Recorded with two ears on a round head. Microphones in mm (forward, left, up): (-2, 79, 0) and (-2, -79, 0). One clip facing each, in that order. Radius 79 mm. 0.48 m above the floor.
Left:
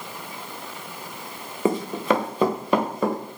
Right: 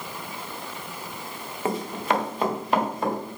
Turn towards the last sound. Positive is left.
turn(degrees=85)